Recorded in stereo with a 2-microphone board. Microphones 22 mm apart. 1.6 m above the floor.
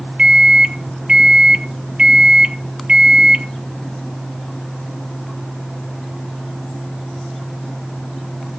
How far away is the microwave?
About 0.9 m.